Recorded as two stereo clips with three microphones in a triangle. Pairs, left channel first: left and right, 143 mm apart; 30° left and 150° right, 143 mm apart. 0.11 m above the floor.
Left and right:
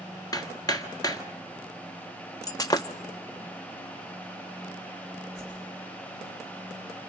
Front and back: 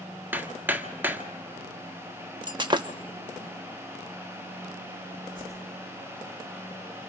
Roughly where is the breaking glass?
Behind left.